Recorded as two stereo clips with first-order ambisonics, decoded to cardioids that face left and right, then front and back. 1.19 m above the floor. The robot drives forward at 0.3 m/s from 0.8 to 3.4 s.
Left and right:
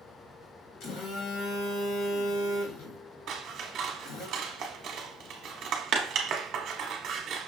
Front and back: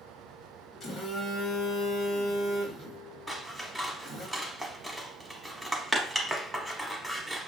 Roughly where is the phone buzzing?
Left.